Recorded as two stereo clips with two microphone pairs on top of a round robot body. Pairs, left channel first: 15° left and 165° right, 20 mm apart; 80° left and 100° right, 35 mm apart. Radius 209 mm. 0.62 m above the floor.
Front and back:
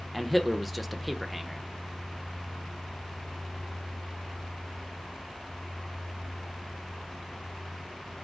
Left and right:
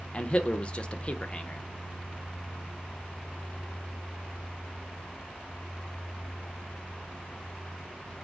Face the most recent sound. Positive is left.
turn(degrees=100)